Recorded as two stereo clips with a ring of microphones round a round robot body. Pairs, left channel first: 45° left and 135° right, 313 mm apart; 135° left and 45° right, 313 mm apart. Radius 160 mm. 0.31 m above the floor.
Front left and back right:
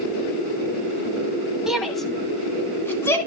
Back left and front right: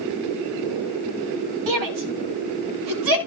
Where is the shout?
45° right, 1.9 m; by 3.2 s 35° right, 3 m.